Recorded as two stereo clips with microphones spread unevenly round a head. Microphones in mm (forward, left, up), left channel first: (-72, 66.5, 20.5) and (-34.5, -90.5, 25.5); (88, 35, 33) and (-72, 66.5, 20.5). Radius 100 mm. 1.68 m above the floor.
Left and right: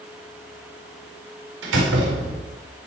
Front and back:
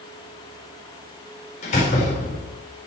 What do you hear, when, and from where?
1.6 s a door slam: 65° right, 4 m